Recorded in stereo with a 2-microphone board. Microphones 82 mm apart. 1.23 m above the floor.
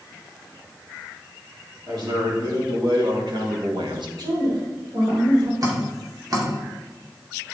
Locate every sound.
1.9 s a man speaking: 70° right (ahead or behind), 3.5 m
4.2 s a woman speaking: 70° right (ahead or behind), 4 m
5.6 s dripping: 45° right (ahead or behind), 2.5 m